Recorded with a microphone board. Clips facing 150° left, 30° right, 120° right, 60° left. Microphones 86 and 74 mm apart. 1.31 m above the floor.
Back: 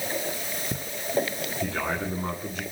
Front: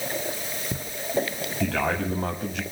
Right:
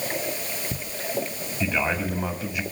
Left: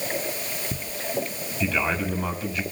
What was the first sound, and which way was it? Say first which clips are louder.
A man speaking: front 4 dB, even; 45° right.